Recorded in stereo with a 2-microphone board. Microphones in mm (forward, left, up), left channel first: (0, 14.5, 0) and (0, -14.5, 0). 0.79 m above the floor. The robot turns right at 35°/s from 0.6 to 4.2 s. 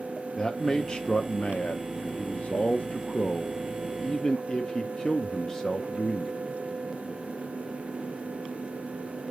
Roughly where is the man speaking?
Ahead left.